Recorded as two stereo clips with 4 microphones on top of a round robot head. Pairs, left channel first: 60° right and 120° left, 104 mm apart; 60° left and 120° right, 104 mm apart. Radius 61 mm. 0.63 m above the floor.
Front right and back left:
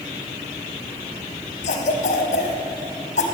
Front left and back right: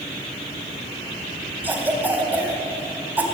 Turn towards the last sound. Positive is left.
turn(degrees=-50)